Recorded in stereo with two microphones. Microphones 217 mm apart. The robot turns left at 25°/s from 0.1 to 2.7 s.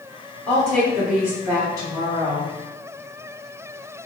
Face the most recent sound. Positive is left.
turn(degrees=-45)